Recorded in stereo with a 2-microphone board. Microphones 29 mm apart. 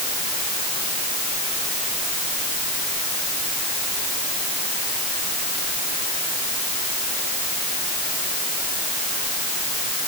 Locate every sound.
Only background noise.